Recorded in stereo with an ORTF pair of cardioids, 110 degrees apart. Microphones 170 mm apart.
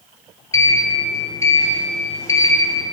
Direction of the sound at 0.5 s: 20° left.